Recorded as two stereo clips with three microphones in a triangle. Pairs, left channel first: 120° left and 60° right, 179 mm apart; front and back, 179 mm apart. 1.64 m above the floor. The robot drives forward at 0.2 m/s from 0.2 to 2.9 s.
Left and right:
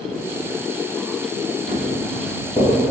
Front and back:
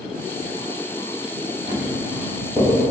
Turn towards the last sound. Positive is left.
turn(degrees=145)